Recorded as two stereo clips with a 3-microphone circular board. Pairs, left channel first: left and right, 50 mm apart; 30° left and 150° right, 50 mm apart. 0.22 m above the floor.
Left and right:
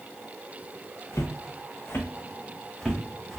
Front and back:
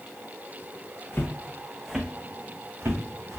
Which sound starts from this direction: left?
Footsteps, at 1.1 s.